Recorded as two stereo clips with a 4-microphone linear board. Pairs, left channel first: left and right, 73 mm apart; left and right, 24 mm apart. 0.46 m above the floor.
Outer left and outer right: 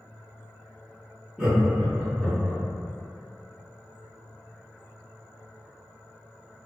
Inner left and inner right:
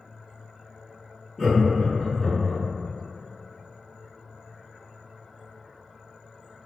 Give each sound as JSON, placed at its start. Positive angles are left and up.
{"t": 1.4, "sound": "laughter", "side_deg": -15, "distance_m": 0.9}